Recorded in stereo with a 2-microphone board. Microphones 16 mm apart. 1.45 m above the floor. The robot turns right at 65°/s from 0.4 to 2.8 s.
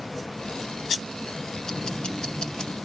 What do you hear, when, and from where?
1.6 s ticking: 40° left, 1.1 m; by 2.7 s 115° left, 1.1 m